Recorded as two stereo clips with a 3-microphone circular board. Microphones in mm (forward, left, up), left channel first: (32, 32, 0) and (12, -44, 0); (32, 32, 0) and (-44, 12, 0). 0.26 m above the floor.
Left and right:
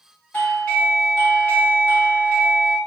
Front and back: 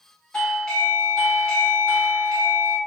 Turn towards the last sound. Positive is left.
turn(degrees=70)